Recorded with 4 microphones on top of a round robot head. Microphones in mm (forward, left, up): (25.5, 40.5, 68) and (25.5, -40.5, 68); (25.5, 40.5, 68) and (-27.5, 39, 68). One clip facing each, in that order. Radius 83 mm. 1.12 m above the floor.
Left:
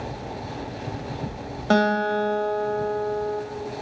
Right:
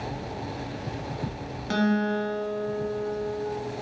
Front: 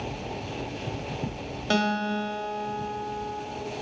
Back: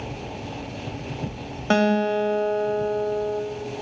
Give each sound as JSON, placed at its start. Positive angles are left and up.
{"t": 1.7, "sound": "a guitar", "azimuth_deg": 130, "distance_m": 3.0}